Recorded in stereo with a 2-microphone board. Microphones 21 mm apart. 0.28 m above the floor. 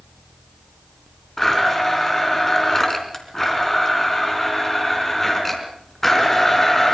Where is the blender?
20° left (ahead or behind), 3.5 m.